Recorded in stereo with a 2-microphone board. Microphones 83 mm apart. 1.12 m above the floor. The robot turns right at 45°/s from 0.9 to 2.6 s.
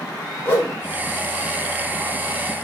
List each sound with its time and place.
0.5 s a whoosh: 30° left (ahead or behind), 1.8 m